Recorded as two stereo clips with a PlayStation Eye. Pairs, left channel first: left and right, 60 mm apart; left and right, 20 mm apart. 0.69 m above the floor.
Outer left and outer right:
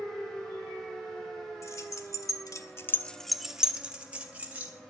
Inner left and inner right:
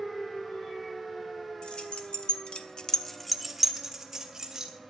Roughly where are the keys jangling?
Left.